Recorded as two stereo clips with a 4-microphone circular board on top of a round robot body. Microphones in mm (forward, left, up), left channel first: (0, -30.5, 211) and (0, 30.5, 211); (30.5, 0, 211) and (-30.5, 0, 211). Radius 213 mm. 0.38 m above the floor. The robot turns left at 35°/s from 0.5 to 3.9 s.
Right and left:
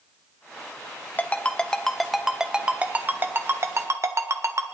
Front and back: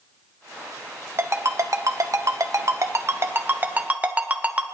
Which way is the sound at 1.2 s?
150° right.